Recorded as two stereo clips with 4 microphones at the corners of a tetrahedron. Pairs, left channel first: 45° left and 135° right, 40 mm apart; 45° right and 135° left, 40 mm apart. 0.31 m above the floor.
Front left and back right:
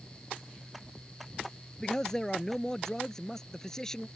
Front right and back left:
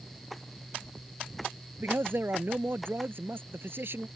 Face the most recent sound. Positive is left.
turn(degrees=120)